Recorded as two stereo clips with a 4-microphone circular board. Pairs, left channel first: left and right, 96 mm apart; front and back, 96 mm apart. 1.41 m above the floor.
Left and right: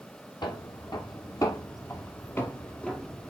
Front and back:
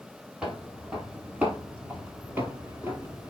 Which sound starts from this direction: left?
Footsteps, at 0.4 s.